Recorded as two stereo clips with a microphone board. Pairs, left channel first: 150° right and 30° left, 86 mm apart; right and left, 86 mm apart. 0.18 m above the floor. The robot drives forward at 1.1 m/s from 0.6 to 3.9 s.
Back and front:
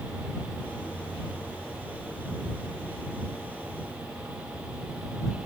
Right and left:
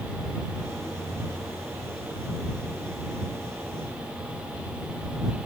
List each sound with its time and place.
Only background noise.